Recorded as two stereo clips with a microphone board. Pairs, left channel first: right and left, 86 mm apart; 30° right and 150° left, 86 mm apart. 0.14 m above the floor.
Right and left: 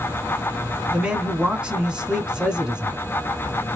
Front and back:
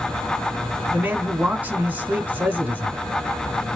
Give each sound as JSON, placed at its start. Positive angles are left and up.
{"t": 0.9, "sound": "a man speaking", "azimuth_deg": 145, "distance_m": 1.6}